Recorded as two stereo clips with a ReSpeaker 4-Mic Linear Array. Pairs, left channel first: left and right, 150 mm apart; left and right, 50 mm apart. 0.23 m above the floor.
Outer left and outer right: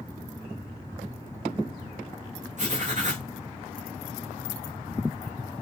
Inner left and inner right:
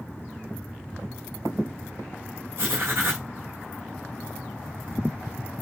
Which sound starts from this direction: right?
Writing, at 2.6 s.